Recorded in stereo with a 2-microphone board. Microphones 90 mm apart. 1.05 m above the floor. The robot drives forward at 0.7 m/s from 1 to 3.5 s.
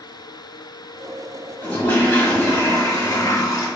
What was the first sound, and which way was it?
A toilet flushing, 25° left (ahead or behind).